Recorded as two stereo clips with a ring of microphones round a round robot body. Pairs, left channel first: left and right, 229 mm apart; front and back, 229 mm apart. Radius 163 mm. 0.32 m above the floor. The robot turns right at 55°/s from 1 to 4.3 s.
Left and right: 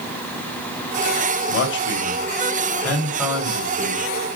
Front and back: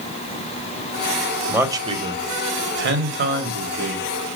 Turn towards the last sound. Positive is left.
turn(degrees=-110)